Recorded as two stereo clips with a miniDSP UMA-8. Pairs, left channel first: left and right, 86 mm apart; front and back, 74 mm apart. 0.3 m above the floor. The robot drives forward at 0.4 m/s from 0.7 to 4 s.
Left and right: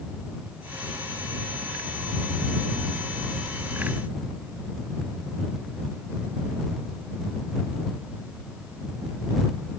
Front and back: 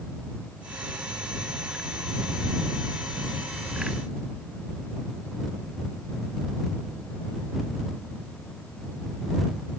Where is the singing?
No singing in this recording.